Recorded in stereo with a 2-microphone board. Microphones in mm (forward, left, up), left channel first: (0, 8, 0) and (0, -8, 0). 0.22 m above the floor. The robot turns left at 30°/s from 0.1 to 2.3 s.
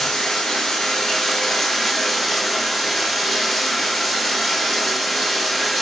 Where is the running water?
75° left, 1.1 m; by 5.8 s 5° left, 1.1 m.